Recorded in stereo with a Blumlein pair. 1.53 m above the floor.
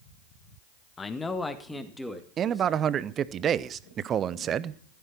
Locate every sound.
1.0 s a man speaking: 15° left, 1.6 m; by 3.0 s 5° right, 3.5 m
2.4 s a man speaking: 25° right, 0.8 m